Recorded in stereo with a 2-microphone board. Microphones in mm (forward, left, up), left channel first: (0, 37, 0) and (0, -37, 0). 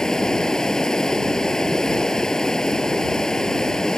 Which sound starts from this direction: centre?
Running water, at 0.0 s.